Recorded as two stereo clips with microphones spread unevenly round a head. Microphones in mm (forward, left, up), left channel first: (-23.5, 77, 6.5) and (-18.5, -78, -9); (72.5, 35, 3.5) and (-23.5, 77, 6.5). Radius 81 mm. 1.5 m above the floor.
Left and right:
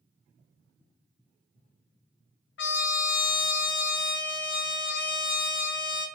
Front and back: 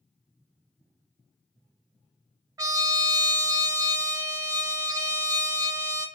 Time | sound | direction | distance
2.6 | a trumpet | 100° left | 0.6 m